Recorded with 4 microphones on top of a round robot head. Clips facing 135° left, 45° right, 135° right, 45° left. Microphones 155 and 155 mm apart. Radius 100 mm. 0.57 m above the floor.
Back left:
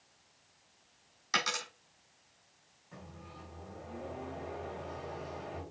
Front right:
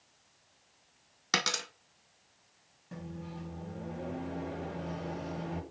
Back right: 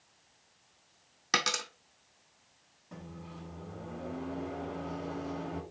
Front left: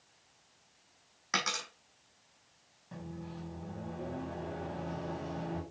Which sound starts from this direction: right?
A dropped coin, at 1.3 s.